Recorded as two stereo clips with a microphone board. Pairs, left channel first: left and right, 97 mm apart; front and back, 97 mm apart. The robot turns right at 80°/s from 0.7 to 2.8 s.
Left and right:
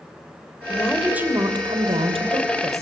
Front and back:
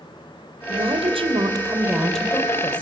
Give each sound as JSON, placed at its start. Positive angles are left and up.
{"t": 0.7, "sound": "a woman speaking", "azimuth_deg": 160, "distance_m": 3.0}